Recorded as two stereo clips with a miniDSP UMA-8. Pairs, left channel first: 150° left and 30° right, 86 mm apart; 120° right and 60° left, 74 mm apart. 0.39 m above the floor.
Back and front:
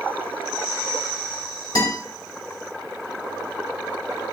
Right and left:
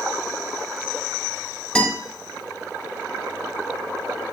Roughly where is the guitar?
Behind.